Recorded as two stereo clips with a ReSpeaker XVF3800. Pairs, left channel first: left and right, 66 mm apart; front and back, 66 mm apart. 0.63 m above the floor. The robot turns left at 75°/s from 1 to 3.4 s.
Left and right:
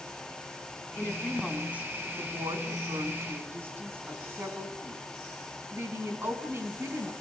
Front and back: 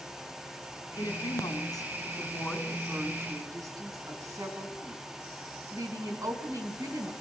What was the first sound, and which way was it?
A woman speaking, 35° left.